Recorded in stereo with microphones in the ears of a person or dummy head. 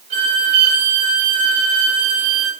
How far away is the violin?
About 8 m.